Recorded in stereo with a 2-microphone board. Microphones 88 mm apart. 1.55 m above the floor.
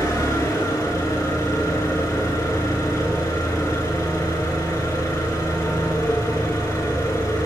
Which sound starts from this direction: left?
An engine running, at 0.0 s.